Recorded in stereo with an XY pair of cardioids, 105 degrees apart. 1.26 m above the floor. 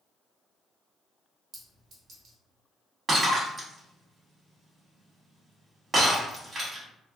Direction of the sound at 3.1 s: 35° right.